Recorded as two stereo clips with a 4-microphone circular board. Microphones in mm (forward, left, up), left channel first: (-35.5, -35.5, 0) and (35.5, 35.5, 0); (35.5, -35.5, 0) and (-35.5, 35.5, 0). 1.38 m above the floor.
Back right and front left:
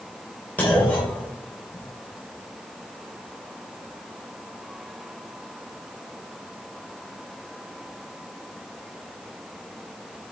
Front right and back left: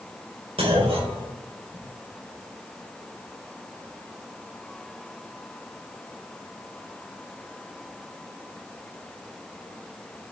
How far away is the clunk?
About 3 m.